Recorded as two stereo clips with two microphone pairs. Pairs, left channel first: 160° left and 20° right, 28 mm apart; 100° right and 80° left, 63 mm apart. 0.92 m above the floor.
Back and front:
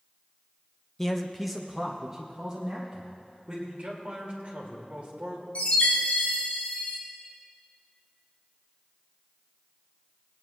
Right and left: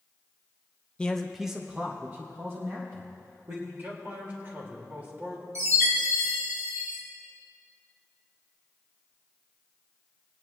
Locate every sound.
1.0 s a man speaking: 135° right, 0.9 m; by 3.6 s 45° left, 2 m
3.7 s a man speaking: 25° left, 3 m
5.5 s a chime: 115° left, 3.5 m